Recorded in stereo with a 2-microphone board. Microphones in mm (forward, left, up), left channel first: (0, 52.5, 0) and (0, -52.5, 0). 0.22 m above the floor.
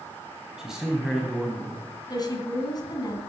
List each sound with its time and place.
0.6 s a man speaking: 5° right (ahead or behind), 1.6 m
2.1 s a woman speaking: 40° left (ahead or behind), 2.0 m